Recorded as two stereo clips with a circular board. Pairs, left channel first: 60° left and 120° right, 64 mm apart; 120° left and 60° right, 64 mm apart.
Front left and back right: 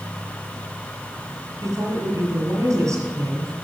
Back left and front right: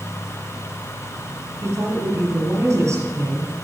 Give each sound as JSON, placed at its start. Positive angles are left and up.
{"t": 1.6, "sound": "a woman speaking", "azimuth_deg": -95, "distance_m": 4.0}